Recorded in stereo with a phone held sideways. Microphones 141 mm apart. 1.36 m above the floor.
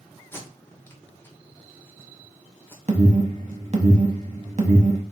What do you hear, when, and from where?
0.3 s tape being pulled: 15° left (ahead or behind), 1.2 m
2.9 s an alarm: 50° right (ahead or behind), 1.0 m